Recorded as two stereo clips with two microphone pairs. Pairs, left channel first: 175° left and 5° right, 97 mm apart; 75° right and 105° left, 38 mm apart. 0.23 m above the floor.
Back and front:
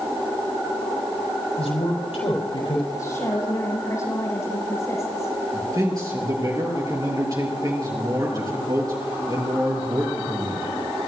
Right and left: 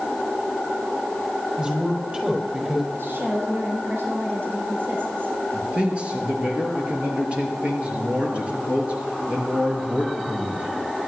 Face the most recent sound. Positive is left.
turn(degrees=45)